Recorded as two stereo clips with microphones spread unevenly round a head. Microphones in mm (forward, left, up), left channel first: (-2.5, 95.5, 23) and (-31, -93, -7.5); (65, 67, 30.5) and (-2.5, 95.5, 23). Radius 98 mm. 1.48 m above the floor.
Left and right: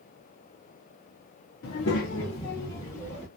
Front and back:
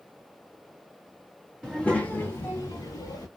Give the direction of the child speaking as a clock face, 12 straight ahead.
10 o'clock.